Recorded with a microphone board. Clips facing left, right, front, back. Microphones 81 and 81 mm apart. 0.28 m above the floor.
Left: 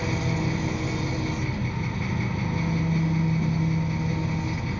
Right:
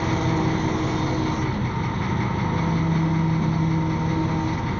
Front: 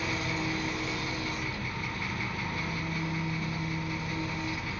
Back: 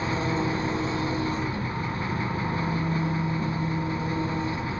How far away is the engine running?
About 0.8 m.